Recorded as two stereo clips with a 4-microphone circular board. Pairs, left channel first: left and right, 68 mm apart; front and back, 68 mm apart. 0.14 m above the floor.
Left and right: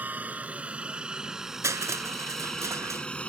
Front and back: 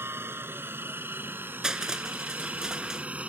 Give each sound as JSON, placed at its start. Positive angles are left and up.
{"t": 0.0, "sound": "a helicopter", "azimuth_deg": -145}
{"t": 1.6, "sound": "crushing", "azimuth_deg": -100}